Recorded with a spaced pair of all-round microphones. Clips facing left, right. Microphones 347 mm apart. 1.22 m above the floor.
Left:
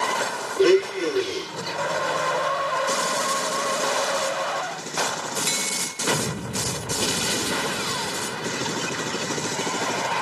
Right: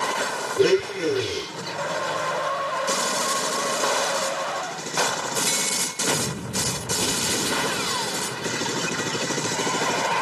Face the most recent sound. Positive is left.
turn(degrees=-55)  # may be behind; listen again after turning